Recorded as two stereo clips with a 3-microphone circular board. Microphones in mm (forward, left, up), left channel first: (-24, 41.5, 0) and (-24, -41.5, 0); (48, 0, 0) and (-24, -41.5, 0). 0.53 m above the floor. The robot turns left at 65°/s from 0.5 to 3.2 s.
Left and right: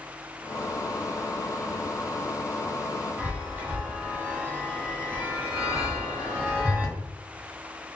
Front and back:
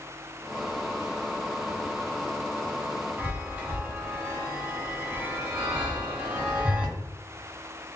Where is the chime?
100° right, 1.0 m.